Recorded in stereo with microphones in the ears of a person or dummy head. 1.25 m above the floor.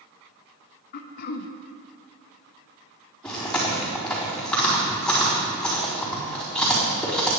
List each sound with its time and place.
0.9 s throat clearing: 60° left (ahead or behind), 1.0 m
3.2 s chewing: 10° left (ahead or behind), 4 m